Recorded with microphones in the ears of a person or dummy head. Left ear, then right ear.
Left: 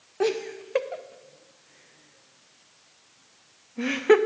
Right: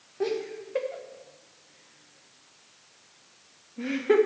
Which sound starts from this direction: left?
Laughter, at 0.2 s.